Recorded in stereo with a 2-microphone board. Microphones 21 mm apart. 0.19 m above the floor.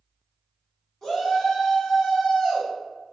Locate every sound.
1.0 s a shout: 25° left (ahead or behind), 1.6 m; by 2.7 s 40° left (ahead or behind), 1.5 m